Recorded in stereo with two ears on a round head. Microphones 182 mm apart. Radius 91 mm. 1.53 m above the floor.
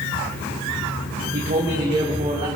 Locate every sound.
1.3 s a man speaking: 45° right (ahead or behind), 2 m; by 2.5 s 20° right (ahead or behind), 2.5 m